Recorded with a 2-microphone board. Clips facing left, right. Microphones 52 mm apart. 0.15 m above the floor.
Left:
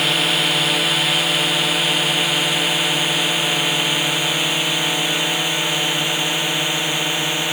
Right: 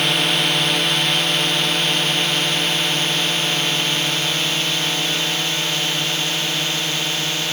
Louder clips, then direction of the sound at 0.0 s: Even; 5° left (ahead or behind).